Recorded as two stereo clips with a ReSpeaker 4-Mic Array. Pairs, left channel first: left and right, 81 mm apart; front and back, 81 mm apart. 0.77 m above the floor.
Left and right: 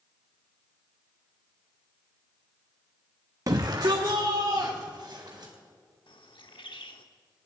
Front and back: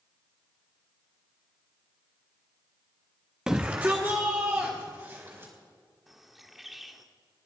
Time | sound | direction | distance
3.5 | a shout | 100° right | 0.7 m
6.1 | a bird | 95° left | 1.2 m